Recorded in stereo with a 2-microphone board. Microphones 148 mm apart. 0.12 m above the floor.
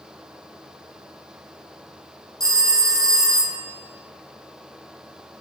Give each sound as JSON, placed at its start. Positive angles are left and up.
{"t": 2.4, "sound": "a phone ringing", "side_deg": -25, "distance_m": 0.9}